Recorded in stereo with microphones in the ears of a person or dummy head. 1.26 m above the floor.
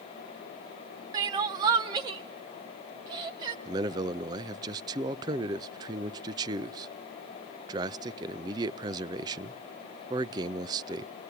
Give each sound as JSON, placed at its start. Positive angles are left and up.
{"t": 1.1, "sound": "crying", "side_deg": -20, "distance_m": 0.9}
{"t": 3.6, "sound": "a man speaking", "side_deg": -20, "distance_m": 0.5}